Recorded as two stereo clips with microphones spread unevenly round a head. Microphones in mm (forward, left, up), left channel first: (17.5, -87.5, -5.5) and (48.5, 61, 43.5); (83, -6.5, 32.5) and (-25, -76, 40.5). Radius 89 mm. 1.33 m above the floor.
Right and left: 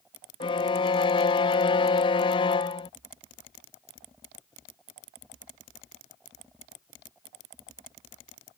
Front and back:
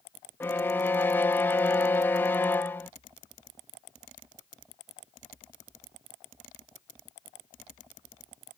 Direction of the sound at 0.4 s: 35° right.